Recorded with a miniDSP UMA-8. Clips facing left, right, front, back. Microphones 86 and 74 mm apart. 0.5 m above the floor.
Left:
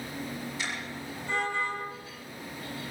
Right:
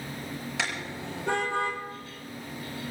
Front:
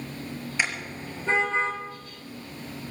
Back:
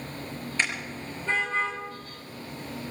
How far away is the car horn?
About 4.5 m.